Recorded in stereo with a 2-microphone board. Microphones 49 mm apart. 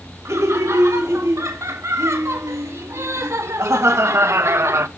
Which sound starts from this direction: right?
Laughter, at 0.2 s.